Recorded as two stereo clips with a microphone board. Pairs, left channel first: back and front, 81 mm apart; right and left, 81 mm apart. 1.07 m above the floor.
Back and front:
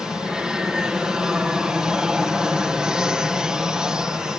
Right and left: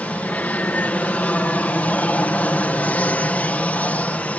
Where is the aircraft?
65° right.